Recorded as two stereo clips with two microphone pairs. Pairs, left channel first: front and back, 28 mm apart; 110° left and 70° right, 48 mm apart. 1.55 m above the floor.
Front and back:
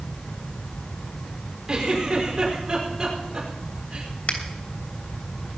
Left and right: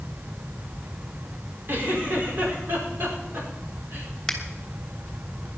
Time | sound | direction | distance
1.7 | a giggle | 110° right | 5.5 m
4.3 | a finger snap | 30° left | 3 m